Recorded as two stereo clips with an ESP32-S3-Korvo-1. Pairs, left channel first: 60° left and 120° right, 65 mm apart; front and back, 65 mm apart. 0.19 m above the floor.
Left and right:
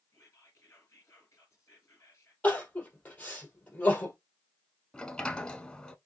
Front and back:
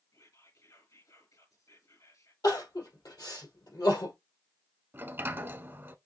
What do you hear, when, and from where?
0.1 s whispering: 15° left, 3 m
2.4 s crying: 5° right, 2.5 m
4.9 s a sliding door: 135° left, 0.6 m